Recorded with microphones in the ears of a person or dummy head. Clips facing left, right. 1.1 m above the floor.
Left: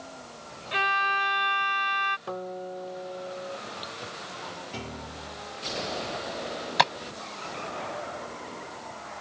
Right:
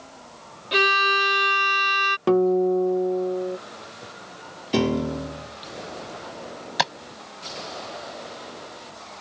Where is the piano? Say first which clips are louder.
Right 23 dB; 80° right.